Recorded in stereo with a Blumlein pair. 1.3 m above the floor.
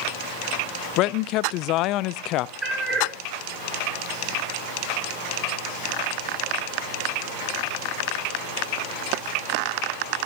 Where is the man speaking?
40° left, 0.5 m.